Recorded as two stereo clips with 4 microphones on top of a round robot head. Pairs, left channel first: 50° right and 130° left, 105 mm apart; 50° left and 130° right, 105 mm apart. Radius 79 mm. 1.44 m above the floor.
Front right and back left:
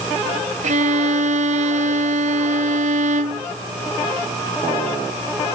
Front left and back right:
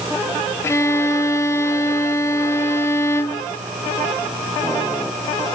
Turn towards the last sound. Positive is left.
turn(degrees=115)